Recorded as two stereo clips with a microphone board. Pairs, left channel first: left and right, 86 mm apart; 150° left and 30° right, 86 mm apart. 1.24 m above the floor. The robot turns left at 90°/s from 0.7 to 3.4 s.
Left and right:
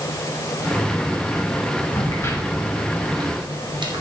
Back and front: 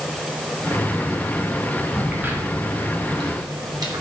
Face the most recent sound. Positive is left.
turn(degrees=-65)